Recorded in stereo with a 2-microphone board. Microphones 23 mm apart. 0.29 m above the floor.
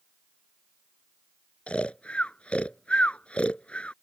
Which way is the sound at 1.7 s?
60° left (ahead or behind).